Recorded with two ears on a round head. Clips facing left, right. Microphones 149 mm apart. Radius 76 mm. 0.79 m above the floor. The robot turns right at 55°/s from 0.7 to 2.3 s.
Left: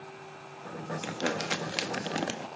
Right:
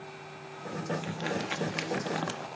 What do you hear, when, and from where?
1.0 s crumpling: 80° left, 1.4 m; by 2.5 s 150° left, 1.4 m